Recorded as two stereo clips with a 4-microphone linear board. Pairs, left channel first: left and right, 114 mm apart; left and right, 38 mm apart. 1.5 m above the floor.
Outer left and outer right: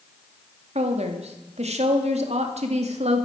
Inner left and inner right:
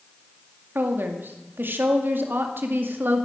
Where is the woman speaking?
75° right (ahead or behind), 2.5 m.